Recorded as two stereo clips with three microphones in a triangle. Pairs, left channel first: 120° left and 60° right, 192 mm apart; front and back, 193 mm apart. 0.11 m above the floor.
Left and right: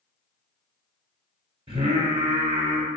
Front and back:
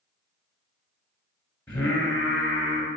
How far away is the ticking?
I don't hear ticking.